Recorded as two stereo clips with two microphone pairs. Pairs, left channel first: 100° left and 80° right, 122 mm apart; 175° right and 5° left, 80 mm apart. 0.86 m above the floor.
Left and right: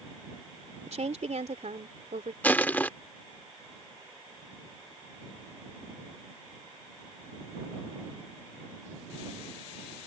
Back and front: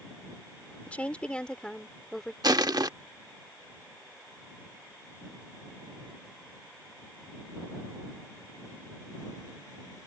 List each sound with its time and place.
0.9 s a woman speaking: 100° right; by 2.3 s 85° right
2.4 s crushing: 25° left